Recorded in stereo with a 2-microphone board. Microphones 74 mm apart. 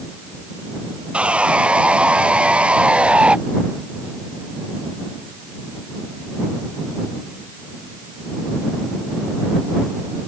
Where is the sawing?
15° right (ahead or behind).